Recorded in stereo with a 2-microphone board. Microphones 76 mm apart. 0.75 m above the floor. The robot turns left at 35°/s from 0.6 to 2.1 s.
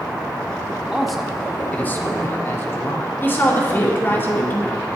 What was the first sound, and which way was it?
A man speaking, 175° right.